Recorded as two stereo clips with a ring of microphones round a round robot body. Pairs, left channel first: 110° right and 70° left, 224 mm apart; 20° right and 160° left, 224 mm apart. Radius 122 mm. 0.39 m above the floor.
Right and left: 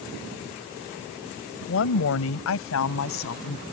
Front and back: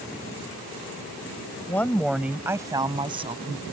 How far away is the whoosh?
No whoosh in this recording.